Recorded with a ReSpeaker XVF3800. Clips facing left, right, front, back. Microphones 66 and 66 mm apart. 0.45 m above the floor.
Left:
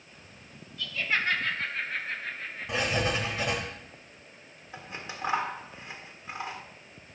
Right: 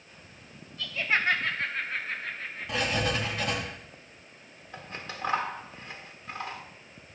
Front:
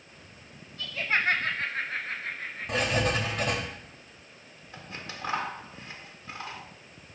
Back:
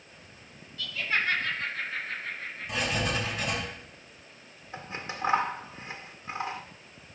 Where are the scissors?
145° left, 1.2 m.